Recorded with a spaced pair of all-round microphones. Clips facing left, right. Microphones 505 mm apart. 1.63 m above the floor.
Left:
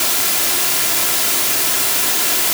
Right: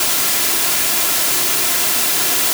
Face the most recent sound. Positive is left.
No sound to turn to.